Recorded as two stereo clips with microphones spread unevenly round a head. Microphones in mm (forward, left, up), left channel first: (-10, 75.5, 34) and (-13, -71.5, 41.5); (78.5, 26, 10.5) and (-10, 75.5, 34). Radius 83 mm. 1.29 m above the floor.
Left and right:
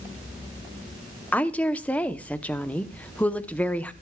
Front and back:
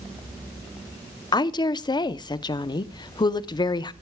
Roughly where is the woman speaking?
Ahead.